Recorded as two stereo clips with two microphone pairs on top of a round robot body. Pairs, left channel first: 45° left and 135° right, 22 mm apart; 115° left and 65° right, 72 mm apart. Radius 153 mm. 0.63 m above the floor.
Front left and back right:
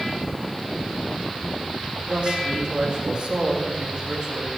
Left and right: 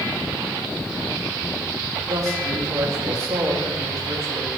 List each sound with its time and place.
2.1 s a man speaking: 100° right, 5.5 m